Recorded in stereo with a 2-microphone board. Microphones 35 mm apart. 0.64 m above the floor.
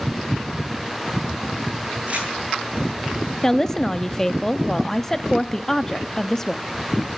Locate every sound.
2.1 s crumpling: 35° right (ahead or behind), 8 m
3.4 s a woman speaking: 15° left (ahead or behind), 0.5 m